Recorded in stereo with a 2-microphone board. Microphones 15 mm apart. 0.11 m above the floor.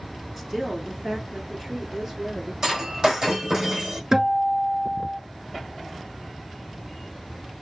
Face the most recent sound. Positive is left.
turn(degrees=-30)  # may be behind; listen again after turning